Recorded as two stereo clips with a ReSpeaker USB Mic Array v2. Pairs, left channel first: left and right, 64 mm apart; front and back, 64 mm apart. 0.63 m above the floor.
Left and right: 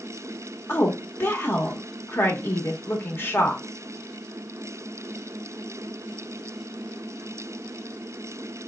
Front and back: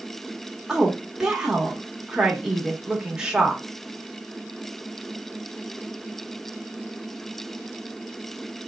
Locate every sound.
0.7 s a woman speaking: 110° left, 1.0 m